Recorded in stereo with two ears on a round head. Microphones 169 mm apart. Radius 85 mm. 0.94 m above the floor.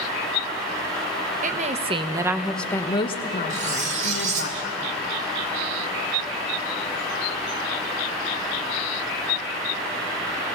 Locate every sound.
1.4 s a woman speaking: 45° right (ahead or behind), 1.2 m; by 4.5 s 60° left (ahead or behind), 1.7 m
3.5 s cutlery clinking: 40° right (ahead or behind), 2.0 m